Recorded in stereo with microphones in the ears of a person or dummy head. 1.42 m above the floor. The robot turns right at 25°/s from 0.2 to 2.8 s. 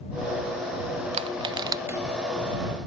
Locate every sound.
1.1 s crushing: 35° right (ahead or behind); by 2.0 s 15° right (ahead or behind)